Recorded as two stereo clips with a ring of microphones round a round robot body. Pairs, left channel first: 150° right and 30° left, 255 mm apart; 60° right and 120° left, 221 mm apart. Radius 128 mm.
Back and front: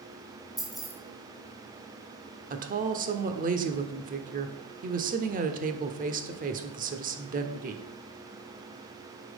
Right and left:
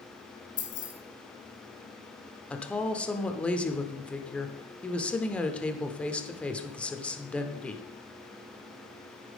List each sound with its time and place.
0.6 s keys jangling: 60° right, 3 m
2.5 s a woman speaking: 20° left, 0.9 m